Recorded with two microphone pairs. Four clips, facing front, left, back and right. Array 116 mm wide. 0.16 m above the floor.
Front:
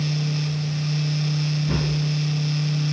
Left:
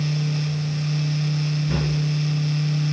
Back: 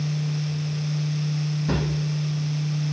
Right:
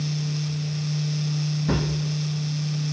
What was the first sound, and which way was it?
A drawer, 130° right.